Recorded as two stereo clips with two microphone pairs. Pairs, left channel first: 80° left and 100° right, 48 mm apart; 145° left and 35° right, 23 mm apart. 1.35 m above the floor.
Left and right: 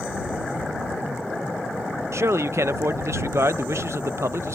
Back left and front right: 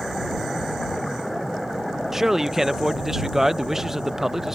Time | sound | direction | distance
2.1 | a man speaking | 110° right | ?